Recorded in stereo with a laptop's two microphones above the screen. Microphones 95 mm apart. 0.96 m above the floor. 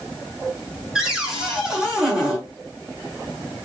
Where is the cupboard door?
10° right (ahead or behind), 1.0 m.